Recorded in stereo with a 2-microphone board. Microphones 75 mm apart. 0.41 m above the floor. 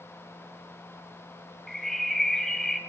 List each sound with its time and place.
1.7 s a bird: 5° left (ahead or behind), 0.9 m